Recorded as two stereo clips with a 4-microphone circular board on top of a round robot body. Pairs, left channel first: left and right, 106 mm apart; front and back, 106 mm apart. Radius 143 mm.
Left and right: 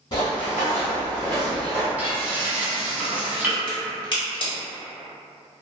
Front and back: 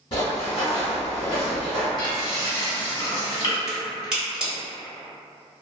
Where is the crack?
100° left, 1.6 m.